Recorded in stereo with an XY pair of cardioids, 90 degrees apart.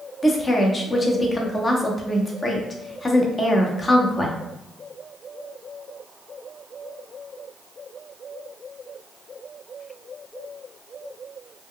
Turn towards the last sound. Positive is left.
turn(degrees=30)